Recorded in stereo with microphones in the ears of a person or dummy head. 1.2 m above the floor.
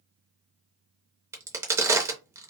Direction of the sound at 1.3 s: 20° right (ahead or behind).